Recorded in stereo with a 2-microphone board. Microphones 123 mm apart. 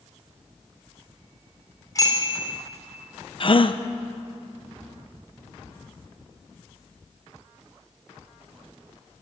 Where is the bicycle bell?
30° left (ahead or behind), 4 m.